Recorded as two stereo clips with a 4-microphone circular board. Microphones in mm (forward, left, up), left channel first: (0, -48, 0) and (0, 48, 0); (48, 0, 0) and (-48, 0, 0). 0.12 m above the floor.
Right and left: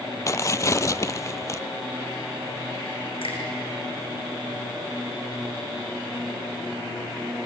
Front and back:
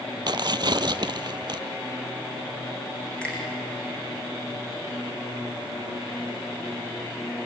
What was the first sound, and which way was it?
Tearing paper, 145° right.